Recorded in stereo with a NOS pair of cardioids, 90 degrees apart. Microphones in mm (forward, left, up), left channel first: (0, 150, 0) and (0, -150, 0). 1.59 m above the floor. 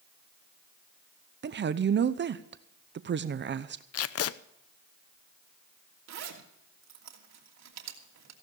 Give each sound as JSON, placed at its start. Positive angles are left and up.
{"t": 1.4, "sound": "a woman speaking", "azimuth_deg": -35, "distance_m": 0.8}
{"t": 3.9, "sound": "tape being pulled", "azimuth_deg": 55, "distance_m": 0.8}
{"t": 6.1, "sound": "a zipper", "azimuth_deg": -60, "distance_m": 3.0}